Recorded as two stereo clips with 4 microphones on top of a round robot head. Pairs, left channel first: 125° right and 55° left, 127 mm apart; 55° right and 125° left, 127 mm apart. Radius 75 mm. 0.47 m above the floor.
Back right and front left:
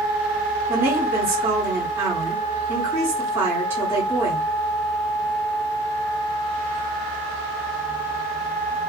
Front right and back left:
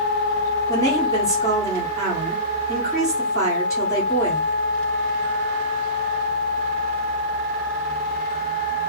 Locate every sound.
0.7 s a woman speaking: 5° right, 1.5 m